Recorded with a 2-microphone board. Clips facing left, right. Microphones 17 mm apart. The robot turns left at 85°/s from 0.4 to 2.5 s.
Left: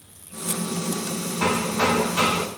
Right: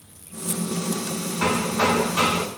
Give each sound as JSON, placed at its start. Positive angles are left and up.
{"t": 1.4, "sound": "hammering", "azimuth_deg": -80, "distance_m": 1.5}